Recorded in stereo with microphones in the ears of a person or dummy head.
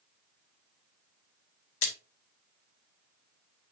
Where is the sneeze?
I don't hear a sneeze.